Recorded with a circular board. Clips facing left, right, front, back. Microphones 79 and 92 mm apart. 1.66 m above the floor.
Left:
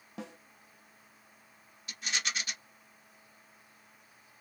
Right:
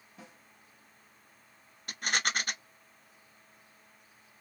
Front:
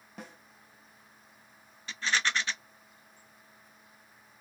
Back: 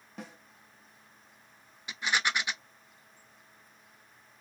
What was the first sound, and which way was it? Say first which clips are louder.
A snare drum: left 9 dB, back 2 dB; 90° left.